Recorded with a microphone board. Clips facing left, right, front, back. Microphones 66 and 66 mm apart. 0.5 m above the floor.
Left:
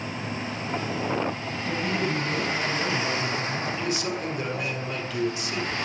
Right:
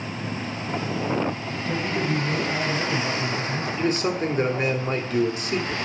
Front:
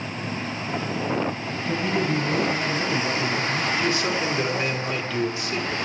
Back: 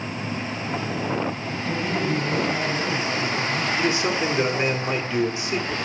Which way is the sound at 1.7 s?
10° right.